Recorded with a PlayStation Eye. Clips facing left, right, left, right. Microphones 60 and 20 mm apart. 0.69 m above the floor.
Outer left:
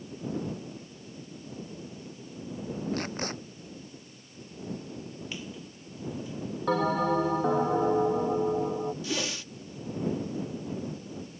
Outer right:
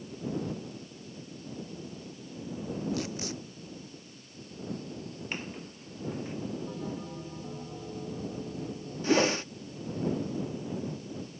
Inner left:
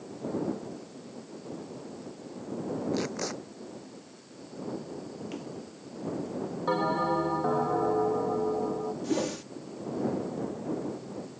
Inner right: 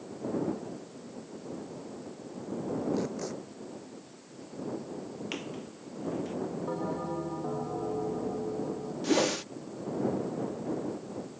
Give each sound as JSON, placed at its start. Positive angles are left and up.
{"t": 2.9, "sound": "tape being pulled", "side_deg": 45}
{"t": 5.3, "sound": "a squeak", "side_deg": -45}
{"t": 6.7, "sound": "a bell", "side_deg": 80}
{"t": 9.0, "sound": "a whoosh", "side_deg": -40}